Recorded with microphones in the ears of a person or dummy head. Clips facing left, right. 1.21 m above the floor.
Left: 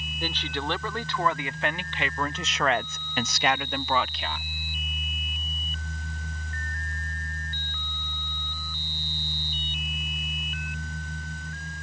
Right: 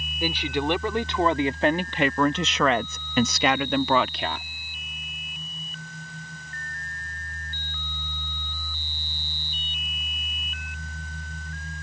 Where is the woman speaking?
10° right (ahead or behind); by 4.5 s 50° right (ahead or behind).